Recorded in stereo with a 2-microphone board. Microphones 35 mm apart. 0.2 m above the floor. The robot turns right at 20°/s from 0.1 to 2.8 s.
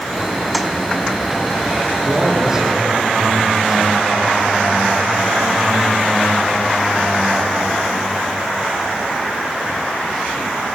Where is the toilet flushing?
Centre (ahead or behind), 1.8 m.